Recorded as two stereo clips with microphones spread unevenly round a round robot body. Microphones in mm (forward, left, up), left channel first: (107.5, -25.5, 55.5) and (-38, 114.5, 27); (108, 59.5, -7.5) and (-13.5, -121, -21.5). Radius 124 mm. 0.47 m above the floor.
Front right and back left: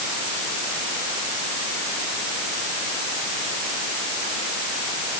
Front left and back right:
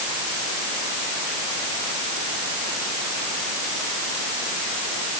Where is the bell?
No bell in this recording.